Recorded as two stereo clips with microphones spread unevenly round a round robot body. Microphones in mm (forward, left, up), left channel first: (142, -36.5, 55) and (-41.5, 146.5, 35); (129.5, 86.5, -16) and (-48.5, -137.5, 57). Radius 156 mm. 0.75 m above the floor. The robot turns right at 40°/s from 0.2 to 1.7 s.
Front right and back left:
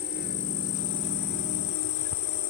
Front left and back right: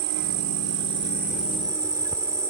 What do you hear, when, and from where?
0.0 s an insect: 105° right; by 2.5 s 45° right